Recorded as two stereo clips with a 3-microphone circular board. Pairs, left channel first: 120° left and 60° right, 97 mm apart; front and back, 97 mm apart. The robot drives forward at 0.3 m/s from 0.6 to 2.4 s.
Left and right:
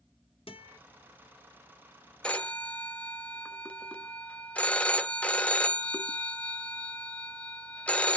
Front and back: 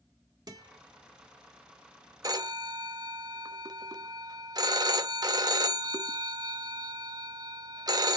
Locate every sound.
0.5 s a guitar: 135° left, 1.3 m
2.2 s a phone ringing: 170° right, 0.6 m